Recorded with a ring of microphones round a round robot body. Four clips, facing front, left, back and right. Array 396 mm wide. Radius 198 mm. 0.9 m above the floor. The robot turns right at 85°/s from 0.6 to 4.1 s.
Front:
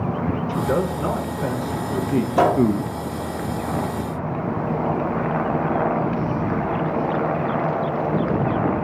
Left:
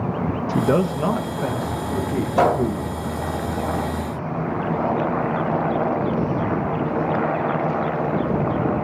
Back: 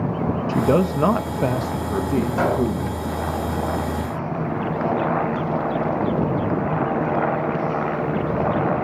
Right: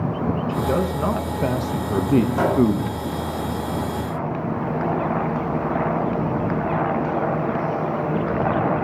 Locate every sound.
0.5 s a man speaking: 135° left, 0.6 m; by 3.0 s 25° right, 0.6 m
2.4 s a gunshot: 30° left, 1.8 m; by 2.7 s 55° left, 1.8 m